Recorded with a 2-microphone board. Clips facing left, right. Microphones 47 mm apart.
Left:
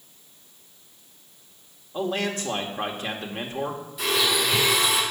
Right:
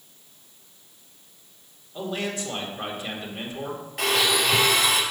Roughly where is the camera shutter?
I don't hear a camera shutter.